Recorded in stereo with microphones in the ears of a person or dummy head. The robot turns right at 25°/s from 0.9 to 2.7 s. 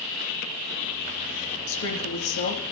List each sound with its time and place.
1.7 s a woman speaking: 80° left, 3.5 m; by 2.6 s 75° left (ahead or behind), 3.5 m